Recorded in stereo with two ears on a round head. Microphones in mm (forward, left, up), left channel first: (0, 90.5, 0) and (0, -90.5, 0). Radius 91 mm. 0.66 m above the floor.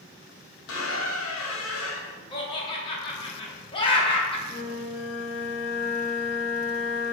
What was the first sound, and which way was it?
A squeak, 70° left (ahead or behind).